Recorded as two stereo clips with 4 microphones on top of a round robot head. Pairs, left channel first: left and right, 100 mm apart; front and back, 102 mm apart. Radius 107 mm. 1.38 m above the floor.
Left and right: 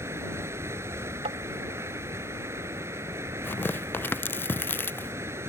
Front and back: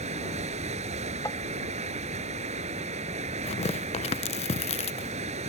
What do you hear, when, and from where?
0.0 s running water: 160° right
1.2 s tapping: 70° right
3.4 s tearing paper: 20° left